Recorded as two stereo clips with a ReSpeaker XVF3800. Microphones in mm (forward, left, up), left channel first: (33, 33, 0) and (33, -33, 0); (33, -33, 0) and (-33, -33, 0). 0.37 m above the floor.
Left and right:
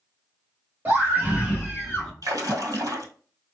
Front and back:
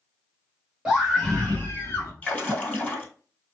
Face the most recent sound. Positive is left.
turn(degrees=-65)